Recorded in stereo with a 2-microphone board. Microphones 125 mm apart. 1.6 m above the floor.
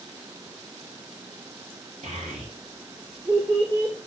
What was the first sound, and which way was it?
A child speaking, 60° right (ahead or behind).